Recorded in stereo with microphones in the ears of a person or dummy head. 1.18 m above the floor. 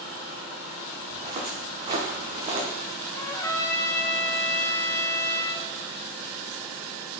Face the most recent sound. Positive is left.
turn(degrees=20)  # may be behind; listen again after turning